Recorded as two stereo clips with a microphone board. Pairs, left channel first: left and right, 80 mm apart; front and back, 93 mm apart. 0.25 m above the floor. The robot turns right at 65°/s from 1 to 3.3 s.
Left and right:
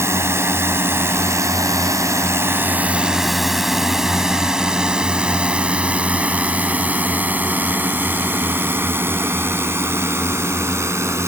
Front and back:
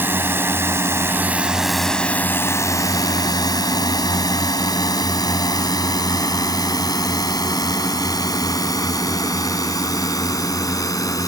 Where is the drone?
125° right; by 11.3 s 45° right.